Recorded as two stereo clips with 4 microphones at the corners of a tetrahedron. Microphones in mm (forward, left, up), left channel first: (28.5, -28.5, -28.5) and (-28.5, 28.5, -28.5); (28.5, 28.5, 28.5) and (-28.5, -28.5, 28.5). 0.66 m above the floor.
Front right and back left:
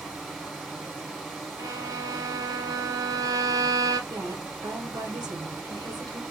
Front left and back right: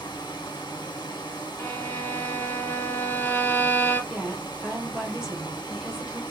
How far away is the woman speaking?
About 1.3 m.